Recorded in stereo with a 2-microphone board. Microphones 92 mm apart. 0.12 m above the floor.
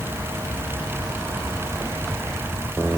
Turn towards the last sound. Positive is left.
No sound to turn to.